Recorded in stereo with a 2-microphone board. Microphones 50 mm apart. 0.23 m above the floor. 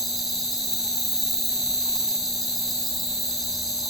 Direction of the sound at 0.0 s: 5° left (ahead or behind).